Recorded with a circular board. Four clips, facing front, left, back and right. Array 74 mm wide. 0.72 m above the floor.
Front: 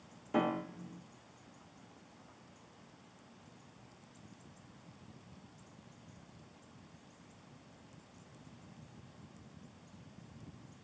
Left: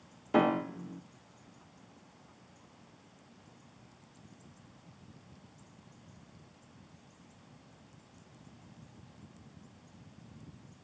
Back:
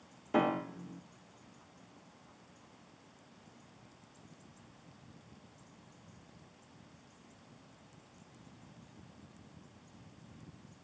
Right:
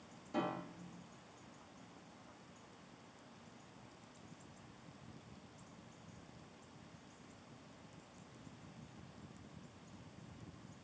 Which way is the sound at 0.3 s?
110° left.